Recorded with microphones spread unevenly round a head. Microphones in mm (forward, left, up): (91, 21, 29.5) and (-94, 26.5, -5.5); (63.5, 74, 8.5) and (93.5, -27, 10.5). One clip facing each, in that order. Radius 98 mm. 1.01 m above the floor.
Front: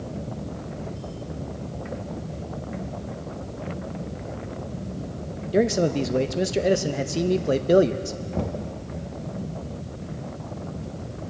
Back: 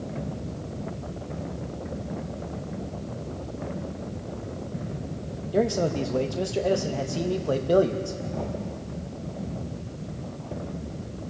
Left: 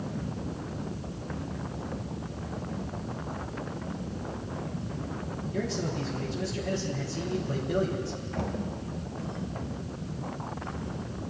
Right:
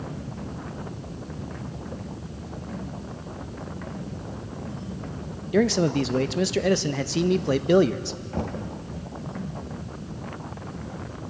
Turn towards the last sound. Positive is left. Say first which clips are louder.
# front 5 dB, right 3 dB
turn(degrees=-30)